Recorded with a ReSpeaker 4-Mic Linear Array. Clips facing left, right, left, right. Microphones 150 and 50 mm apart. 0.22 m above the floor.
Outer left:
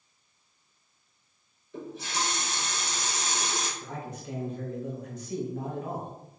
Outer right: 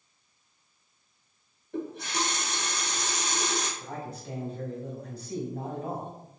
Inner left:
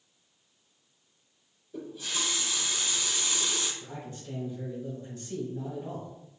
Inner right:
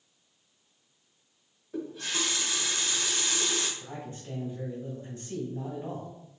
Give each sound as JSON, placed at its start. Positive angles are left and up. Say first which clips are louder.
{"t": 1.7, "sound": "a running tap", "louder": "outer right 3 dB, inner right 2 dB", "side_deg": -60, "distance_m": 1.6}
{"t": 3.8, "sound": "a man speaking", "louder": "even, inner right 1 dB", "side_deg": -35, "distance_m": 1.9}